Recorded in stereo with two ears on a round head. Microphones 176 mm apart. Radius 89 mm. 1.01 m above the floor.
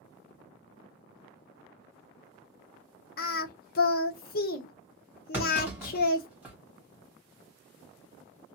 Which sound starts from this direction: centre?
A clunk, at 5.3 s.